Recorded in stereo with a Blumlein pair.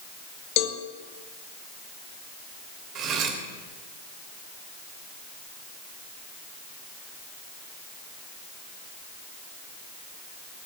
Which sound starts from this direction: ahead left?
A cowbell, at 0.6 s.